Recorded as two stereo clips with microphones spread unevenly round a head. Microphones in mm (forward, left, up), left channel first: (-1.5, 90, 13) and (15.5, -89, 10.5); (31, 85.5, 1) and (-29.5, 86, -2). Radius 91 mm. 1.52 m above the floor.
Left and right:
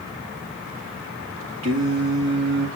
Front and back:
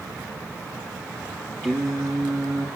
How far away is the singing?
About 2.0 m.